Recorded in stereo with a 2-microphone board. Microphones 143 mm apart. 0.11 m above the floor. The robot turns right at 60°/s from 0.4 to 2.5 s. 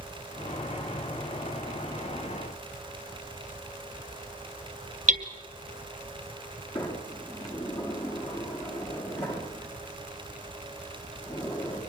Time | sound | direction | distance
5.1 | hammering | 60° right (ahead or behind) | 1.7 m
6.8 | a sliding door | 35° left (ahead or behind) | 7 m